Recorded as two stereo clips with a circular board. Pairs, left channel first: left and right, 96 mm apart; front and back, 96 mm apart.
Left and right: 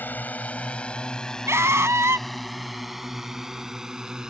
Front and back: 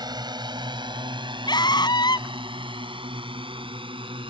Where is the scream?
30° right.